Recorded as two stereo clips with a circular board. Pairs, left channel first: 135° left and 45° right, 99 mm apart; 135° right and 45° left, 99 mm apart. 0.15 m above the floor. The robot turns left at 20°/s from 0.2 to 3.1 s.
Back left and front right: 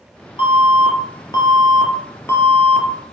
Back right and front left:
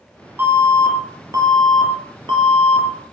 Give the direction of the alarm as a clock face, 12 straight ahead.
8 o'clock.